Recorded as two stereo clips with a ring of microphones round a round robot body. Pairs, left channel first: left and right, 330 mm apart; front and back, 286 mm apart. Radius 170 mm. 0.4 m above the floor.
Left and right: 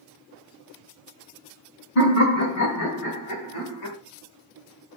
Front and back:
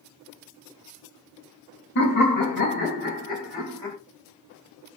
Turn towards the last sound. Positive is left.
turn(degrees=85)